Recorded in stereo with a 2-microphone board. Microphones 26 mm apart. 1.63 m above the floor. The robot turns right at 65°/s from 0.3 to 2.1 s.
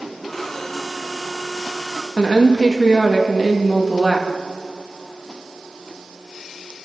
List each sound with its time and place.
2.2 s a woman speaking: 15° left (ahead or behind), 2 m